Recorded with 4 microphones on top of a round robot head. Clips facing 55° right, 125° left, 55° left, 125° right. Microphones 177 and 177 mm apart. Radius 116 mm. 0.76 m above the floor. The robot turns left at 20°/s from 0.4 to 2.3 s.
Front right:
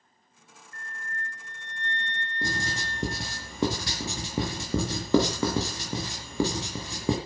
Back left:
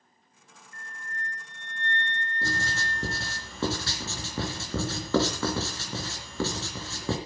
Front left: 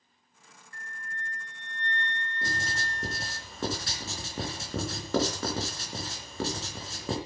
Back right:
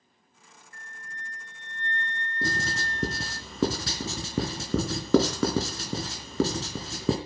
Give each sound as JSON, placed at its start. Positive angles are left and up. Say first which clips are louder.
{"t": 0.7, "sound": "a flute", "louder": "front right 2 dB, front left 4 dB", "azimuth_deg": 105, "distance_m": 0.6}
{"t": 2.4, "sound": "writing", "louder": "front right 1 dB, back right 6 dB", "azimuth_deg": -130, "distance_m": 3.5}